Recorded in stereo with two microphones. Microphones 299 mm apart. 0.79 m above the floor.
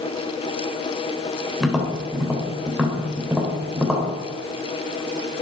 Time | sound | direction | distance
1.6 | tapping | centre (ahead or behind) | 3.5 m